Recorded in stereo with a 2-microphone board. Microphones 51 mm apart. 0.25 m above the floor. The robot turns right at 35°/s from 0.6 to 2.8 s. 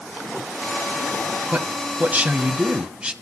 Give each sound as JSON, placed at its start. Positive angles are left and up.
{"t": 1.5, "sound": "a man speaking", "azimuth_deg": -80, "distance_m": 1.9}